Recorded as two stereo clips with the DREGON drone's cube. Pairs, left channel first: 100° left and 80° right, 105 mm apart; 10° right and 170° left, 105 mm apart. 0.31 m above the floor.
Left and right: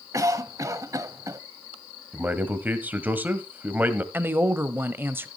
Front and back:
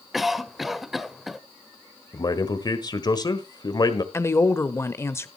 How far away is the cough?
About 1.0 m.